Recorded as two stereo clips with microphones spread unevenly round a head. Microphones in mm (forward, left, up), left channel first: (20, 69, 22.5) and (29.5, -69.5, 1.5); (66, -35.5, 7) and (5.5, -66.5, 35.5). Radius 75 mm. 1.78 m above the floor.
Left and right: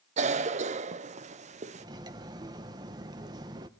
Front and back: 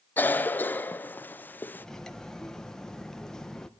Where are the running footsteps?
No running footsteps in this recording.